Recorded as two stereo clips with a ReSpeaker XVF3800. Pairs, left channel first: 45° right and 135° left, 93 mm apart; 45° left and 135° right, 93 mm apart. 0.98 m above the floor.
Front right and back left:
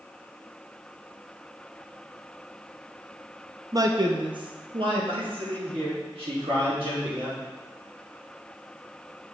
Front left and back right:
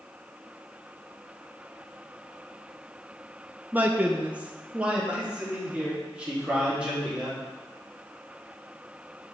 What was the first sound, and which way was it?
A man speaking, 160° left.